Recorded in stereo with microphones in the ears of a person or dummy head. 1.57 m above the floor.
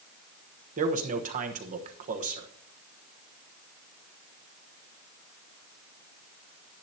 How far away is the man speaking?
About 1.1 m.